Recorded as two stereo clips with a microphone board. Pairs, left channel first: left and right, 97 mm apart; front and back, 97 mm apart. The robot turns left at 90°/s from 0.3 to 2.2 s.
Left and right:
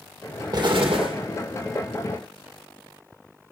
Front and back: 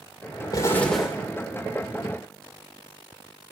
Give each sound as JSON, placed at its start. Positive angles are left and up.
{"t": 0.5, "sound": "an explosion", "azimuth_deg": -45, "distance_m": 2.5}